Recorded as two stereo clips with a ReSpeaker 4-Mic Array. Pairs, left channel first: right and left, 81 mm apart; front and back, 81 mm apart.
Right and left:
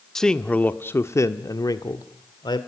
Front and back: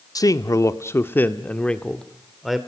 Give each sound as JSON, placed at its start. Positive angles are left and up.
{"t": 0.1, "sound": "a man speaking", "azimuth_deg": -5, "distance_m": 1.1}